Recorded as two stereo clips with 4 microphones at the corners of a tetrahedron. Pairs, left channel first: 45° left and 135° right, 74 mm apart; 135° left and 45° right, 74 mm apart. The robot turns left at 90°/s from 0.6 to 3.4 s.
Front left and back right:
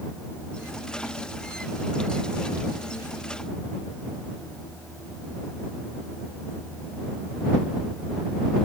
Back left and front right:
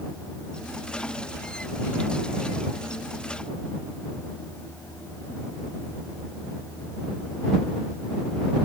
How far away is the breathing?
I don't hear breathing.